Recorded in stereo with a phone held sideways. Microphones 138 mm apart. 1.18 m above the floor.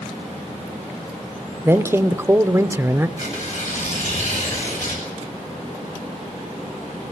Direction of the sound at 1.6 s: 15° right (ahead or behind).